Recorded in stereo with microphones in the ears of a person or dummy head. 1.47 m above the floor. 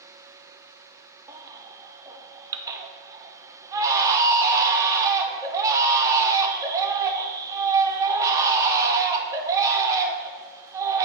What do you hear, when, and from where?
1.3 s a baby crying: 20° right (ahead or behind), 0.5 m